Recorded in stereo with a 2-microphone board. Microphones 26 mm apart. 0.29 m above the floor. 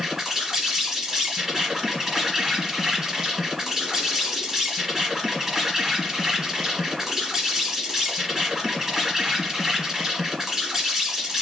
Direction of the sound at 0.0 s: 5° right (ahead or behind).